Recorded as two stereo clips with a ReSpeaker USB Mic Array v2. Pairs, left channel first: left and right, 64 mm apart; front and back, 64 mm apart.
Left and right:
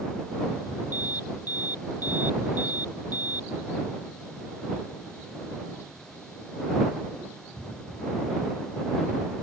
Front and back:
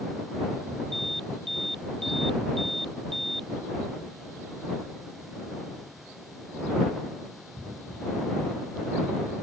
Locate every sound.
0.9 s an alarm: 90° left